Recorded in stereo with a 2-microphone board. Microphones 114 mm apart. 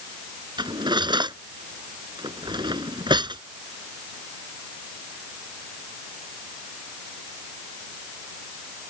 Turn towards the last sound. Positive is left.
turn(degrees=-40)  # may be behind; listen again after turning